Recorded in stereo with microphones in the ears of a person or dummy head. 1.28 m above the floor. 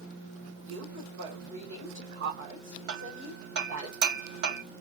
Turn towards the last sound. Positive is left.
turn(degrees=-65)  # may be behind; listen again after turning